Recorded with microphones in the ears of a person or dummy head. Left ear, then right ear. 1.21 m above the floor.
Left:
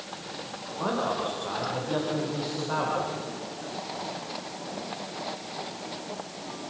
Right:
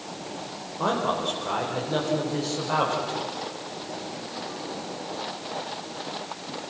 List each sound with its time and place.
0.8 s a man speaking: 15° right (ahead or behind), 4 m